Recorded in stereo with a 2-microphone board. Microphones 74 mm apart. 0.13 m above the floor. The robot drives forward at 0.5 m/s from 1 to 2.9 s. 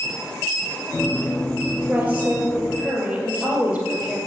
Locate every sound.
1.9 s a woman speaking: 15° right (ahead or behind), 2 m; by 4.2 s 10° right (ahead or behind), 2.5 m